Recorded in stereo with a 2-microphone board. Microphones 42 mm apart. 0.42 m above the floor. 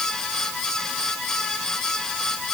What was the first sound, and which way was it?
Only background noise.